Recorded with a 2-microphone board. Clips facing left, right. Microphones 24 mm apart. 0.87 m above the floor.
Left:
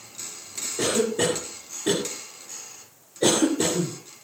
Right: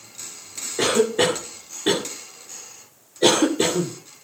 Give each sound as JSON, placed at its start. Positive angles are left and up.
{"t": 0.8, "sound": "a cough", "side_deg": -35, "distance_m": 2.5}